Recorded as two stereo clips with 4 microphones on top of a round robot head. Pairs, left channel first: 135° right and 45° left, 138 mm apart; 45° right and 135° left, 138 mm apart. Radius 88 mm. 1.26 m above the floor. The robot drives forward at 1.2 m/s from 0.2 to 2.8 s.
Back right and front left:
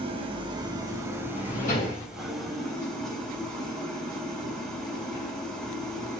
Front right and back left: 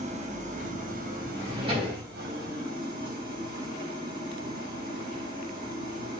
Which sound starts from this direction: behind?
A drawer, at 1.4 s.